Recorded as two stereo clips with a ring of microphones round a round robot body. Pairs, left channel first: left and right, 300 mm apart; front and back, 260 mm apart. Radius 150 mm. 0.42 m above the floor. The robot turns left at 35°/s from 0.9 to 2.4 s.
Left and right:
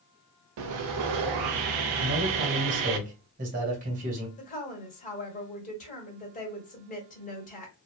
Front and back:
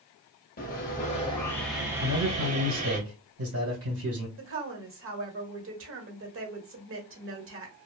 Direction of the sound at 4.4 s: 150° left.